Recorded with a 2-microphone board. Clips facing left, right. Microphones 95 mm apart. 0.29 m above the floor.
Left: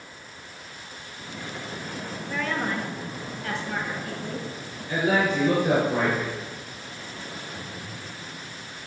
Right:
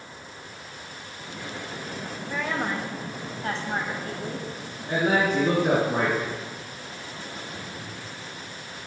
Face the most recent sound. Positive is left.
turn(degrees=-55)  # may be behind; listen again after turning